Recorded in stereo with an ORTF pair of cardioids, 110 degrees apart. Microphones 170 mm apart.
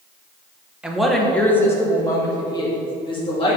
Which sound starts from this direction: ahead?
A woman speaking, at 0.8 s.